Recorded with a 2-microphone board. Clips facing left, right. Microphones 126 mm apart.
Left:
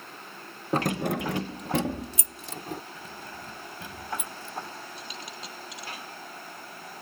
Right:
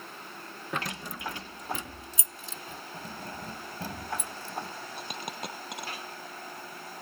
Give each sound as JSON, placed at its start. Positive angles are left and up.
{"t": 0.7, "sound": "keys jangling", "side_deg": 35}
{"t": 2.9, "sound": "keys jangling", "side_deg": -35}
{"t": 5.0, "sound": "a dropped coin", "side_deg": -60}